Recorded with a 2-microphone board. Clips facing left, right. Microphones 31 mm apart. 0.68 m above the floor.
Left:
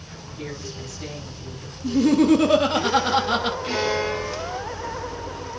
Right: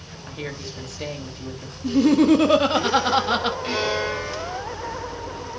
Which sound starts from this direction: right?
A woman speaking, at 0.3 s.